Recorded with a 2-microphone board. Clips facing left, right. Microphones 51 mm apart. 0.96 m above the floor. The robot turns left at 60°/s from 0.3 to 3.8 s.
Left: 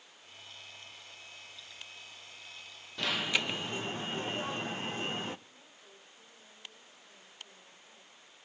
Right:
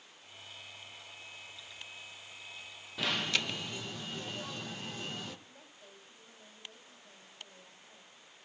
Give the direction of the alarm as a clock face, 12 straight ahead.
6 o'clock.